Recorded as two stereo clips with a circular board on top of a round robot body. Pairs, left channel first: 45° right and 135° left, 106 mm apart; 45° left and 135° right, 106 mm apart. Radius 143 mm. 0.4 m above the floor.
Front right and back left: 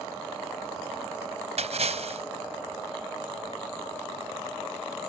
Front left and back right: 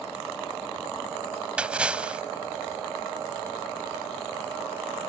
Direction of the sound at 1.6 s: 145° left.